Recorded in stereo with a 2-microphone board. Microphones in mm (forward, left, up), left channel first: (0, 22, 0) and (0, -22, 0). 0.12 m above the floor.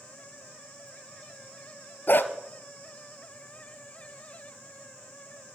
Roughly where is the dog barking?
Left.